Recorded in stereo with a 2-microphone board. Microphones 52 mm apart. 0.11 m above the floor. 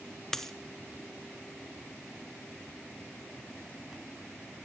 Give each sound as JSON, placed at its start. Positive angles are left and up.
{"t": 0.3, "sound": "a dropped coin", "side_deg": 10, "distance_m": 0.6}